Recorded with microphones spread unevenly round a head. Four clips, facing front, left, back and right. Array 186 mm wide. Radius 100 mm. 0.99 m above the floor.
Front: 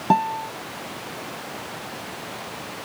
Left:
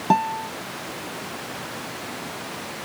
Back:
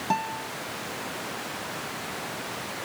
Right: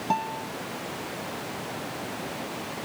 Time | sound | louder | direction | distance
0.1 | a guitar | left 8 dB, front 8 dB | 50° left | ?